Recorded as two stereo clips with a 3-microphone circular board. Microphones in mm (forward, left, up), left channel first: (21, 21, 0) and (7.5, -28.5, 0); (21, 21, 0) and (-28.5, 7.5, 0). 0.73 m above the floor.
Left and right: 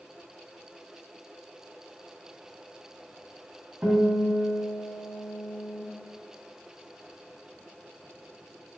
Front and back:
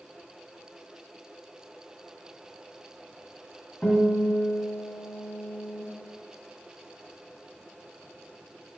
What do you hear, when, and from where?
3.8 s a guitar: 50° right, 2.5 m